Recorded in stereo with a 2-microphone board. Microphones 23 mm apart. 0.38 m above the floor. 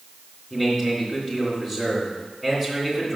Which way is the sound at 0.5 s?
10° left (ahead or behind).